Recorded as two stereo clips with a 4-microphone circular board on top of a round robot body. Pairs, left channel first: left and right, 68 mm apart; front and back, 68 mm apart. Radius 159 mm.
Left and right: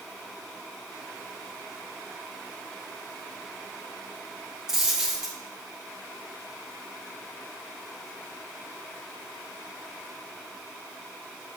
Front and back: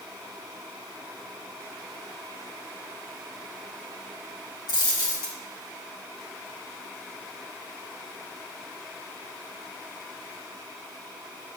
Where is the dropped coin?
10° right, 2.5 m.